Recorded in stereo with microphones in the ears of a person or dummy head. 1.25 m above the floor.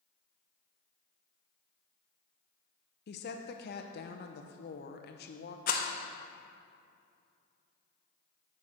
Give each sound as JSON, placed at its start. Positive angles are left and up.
{"t": 3.1, "sound": "a woman speaking", "side_deg": 50, "distance_m": 0.7}
{"t": 5.7, "sound": "a rattle", "side_deg": 45, "distance_m": 0.8}